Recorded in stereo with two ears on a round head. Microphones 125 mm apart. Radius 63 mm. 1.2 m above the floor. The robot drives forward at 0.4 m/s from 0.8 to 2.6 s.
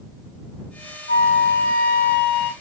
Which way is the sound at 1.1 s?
85° left.